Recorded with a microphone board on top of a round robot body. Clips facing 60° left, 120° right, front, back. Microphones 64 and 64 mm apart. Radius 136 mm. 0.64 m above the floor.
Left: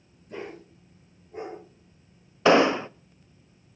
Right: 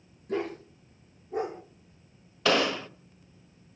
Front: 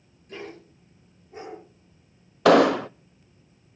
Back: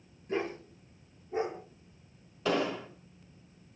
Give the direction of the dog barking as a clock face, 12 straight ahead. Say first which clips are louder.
Right 7 dB, back 6 dB; 4 o'clock.